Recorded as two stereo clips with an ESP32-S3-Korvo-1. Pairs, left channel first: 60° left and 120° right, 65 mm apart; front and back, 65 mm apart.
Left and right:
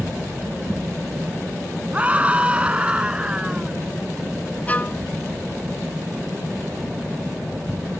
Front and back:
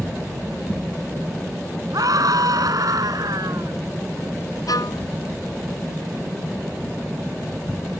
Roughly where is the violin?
Ahead.